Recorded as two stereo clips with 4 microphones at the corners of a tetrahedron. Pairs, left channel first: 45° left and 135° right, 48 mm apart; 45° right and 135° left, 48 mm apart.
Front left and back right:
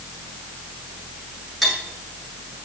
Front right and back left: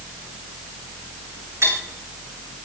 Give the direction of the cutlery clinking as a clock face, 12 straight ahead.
7 o'clock.